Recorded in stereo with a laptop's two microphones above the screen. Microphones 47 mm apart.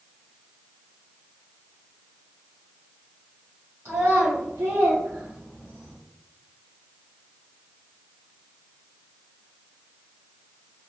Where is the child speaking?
65° right (ahead or behind), 1.0 m; by 6.0 s 10° left (ahead or behind), 0.8 m.